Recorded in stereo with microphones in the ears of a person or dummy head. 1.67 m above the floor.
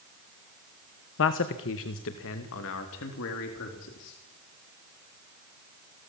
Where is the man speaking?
70° left (ahead or behind), 1.1 m.